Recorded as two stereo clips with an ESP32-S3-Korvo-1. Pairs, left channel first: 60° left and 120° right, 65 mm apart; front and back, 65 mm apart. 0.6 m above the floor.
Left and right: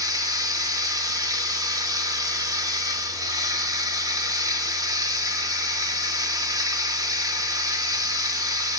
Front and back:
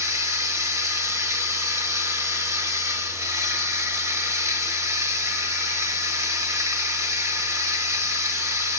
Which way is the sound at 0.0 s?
140° right.